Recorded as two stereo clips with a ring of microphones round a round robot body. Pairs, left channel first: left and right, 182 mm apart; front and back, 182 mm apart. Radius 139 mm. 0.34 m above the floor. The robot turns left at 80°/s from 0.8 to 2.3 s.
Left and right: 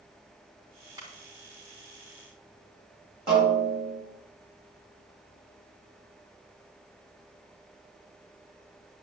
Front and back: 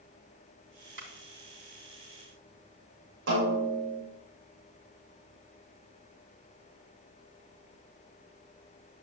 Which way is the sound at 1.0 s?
160° right.